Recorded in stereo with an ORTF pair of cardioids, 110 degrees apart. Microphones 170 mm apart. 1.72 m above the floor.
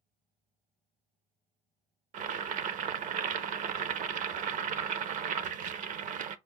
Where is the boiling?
50° right, 0.5 m.